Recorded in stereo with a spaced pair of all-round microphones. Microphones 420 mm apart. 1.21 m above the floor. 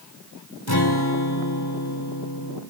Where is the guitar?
60° left (ahead or behind), 1.9 m.